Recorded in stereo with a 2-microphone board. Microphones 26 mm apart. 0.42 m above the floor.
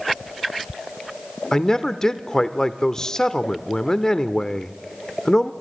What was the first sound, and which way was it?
A man speaking, 25° left (ahead or behind).